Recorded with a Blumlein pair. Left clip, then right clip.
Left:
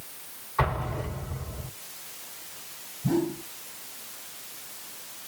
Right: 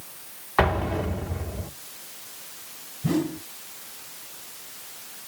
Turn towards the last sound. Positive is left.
turn(degrees=-55)